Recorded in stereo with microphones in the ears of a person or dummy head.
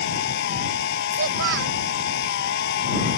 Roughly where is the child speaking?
Right.